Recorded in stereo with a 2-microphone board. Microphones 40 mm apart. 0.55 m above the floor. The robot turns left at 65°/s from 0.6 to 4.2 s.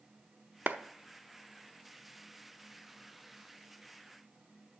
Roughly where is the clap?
Right.